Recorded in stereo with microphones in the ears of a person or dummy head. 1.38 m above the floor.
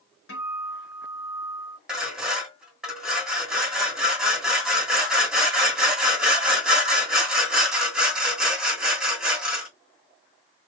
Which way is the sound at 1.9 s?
Centre (ahead or behind).